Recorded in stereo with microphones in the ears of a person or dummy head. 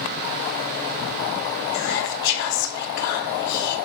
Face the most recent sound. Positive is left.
turn(degrees=55)  # may be behind; listen again after turning